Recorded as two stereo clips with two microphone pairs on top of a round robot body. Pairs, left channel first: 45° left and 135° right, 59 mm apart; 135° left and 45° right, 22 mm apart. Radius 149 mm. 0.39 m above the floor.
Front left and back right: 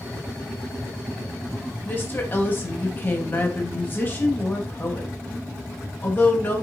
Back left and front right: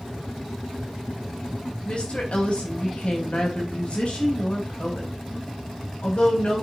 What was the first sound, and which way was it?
A woman speaking, 95° left.